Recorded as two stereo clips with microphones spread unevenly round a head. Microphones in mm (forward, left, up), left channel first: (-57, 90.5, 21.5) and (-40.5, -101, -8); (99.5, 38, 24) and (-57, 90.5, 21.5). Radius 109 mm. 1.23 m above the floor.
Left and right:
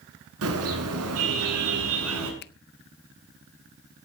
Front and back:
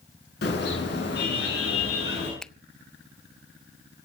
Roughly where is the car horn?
Ahead right.